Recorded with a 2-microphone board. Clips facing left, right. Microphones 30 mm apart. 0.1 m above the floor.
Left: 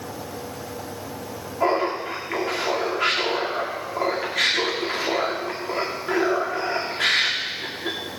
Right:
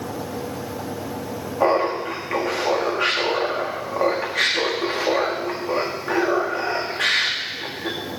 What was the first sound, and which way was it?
Laughter, 80° right.